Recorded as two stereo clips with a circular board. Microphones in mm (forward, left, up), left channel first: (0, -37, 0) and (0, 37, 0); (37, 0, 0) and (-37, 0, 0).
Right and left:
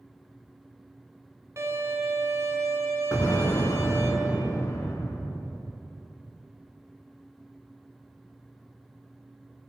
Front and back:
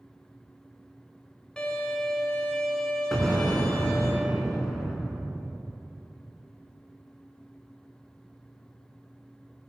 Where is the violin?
75° left, 0.9 m.